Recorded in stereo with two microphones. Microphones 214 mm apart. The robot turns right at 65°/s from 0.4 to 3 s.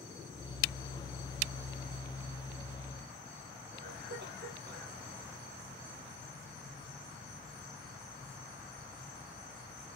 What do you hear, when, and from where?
3.7 s a cough: 55° right (ahead or behind), 3 m